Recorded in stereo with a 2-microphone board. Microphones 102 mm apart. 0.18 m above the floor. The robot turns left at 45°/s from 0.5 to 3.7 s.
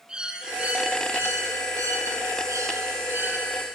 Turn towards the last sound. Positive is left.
turn(degrees=-160)